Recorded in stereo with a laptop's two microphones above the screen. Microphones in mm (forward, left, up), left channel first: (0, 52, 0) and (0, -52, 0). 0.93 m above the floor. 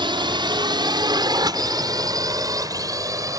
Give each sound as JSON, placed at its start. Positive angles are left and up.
{"t": 0.0, "sound": "a drone", "side_deg": -50}